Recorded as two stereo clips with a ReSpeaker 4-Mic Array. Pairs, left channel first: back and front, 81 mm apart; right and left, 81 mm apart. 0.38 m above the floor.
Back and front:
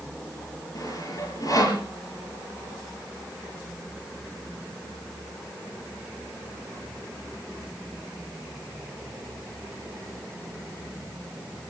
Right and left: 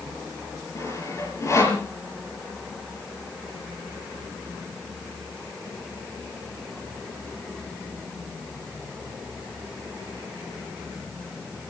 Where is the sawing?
140° right, 7 m.